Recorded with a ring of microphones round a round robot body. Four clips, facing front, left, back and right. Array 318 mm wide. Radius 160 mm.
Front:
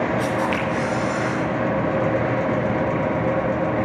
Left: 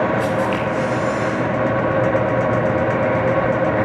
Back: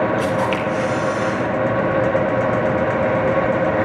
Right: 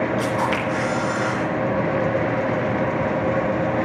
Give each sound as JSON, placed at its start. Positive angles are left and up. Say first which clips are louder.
{"t": 0.2, "sound": "a camera shutter", "louder": "left 3 dB, back 3 dB", "azimuth_deg": -130, "distance_m": 5.5}